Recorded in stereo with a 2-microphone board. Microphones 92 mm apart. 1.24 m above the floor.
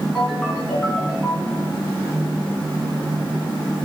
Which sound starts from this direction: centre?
A ringtone, at 0.1 s.